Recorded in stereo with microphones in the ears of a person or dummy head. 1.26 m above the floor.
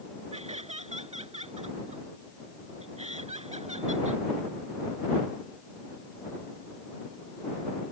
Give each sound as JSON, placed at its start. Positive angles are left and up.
{"t": 0.3, "sound": "laughter", "side_deg": -35}